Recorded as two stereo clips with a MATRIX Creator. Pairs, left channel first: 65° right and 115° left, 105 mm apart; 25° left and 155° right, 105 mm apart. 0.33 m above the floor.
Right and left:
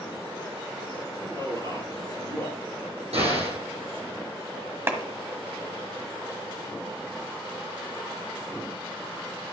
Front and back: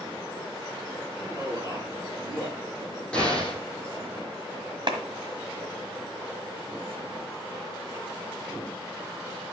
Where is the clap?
175° left, 1.5 m.